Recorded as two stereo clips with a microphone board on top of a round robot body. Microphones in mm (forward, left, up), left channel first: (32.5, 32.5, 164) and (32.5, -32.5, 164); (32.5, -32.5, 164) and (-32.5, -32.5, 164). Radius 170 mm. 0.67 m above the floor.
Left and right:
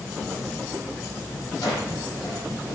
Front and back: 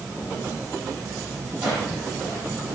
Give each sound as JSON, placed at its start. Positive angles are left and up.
{"t": 1.6, "sound": "a drawer", "azimuth_deg": 105, "distance_m": 7.5}